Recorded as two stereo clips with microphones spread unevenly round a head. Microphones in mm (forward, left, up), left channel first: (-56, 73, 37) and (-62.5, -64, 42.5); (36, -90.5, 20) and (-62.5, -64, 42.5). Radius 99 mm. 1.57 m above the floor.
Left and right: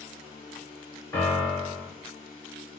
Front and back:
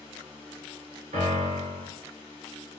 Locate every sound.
0.0 s a fan: 75° left, 0.9 m
1.1 s a piano: 160° left, 1.1 m